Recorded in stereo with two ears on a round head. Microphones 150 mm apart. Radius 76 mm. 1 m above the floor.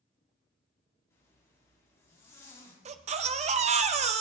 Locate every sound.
1.1 s a zipper: 20° left (ahead or behind), 3.5 m
2.9 s a baby crying: 40° right (ahead or behind), 0.5 m